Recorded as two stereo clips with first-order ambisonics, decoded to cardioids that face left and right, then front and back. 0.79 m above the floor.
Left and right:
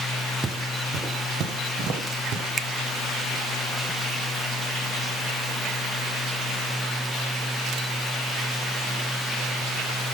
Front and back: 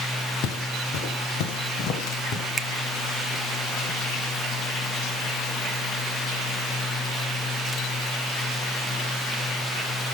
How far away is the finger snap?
About 0.6 m.